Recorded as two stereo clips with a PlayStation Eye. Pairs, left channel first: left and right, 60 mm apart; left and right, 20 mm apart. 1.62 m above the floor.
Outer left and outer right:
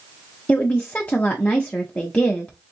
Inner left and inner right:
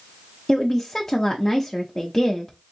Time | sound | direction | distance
0.5 | a woman speaking | 20° left (ahead or behind) | 0.5 m